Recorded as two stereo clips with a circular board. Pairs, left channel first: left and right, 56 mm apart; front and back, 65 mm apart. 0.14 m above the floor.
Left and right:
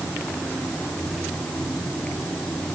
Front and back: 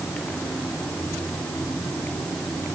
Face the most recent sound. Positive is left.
No sound to turn to.